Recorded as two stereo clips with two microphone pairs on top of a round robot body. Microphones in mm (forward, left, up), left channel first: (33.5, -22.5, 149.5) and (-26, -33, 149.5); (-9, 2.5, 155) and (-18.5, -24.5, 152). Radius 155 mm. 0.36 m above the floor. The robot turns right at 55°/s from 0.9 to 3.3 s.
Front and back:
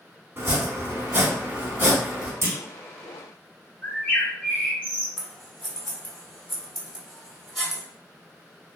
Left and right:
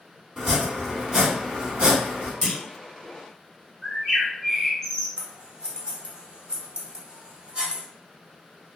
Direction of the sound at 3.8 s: 15° right.